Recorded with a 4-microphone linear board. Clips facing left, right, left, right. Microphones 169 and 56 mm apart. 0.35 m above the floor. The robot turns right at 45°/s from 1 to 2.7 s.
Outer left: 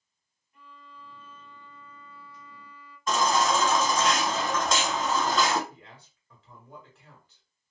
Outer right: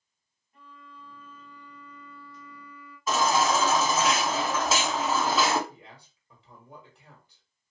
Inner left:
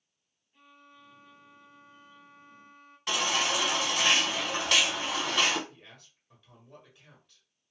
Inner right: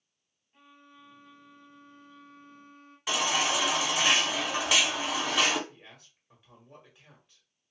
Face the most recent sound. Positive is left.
turn(degrees=-15)  # may be behind; listen again after turning